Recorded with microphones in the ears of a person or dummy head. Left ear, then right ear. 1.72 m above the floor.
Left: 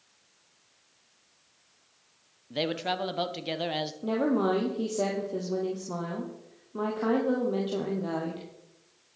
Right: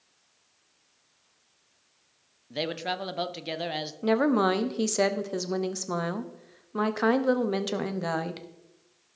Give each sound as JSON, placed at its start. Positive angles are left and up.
{"t": 2.5, "sound": "a man speaking", "side_deg": 0, "distance_m": 0.6}
{"t": 4.0, "sound": "a woman speaking", "side_deg": -65, "distance_m": 0.9}